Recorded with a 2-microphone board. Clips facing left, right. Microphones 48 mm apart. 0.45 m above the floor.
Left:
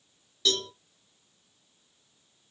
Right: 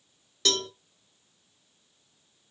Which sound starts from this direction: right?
A cowbell, at 0.5 s.